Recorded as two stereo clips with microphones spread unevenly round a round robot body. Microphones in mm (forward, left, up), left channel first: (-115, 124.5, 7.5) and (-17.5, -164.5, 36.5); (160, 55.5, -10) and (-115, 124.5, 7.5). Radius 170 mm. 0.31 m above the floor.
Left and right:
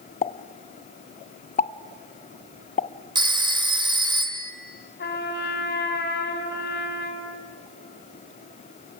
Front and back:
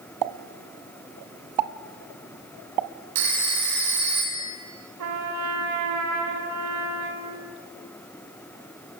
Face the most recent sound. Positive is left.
turn(degrees=160)